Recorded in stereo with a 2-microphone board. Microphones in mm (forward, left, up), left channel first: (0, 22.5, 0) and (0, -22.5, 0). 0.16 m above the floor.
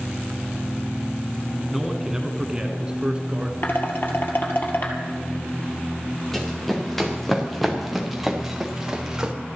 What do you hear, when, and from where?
1.7 s a man speaking: 5° right (ahead or behind), 1.4 m; by 3.5 s 30° right (ahead or behind), 1.9 m
3.6 s dishes clattering: 55° left (ahead or behind), 2.5 m
6.3 s running footsteps: 5° left (ahead or behind), 4 m; by 9.3 s 20° right (ahead or behind), 2.0 m